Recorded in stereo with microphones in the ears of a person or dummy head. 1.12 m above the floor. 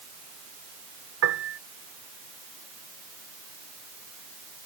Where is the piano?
80° right.